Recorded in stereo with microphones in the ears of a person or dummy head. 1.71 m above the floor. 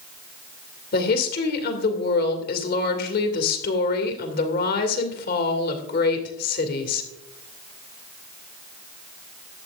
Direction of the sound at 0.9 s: 55° left (ahead or behind).